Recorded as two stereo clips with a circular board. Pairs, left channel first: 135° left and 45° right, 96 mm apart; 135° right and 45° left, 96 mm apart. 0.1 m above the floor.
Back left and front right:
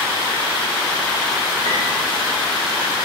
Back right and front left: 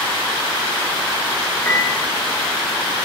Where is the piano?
70° right, 4.5 m.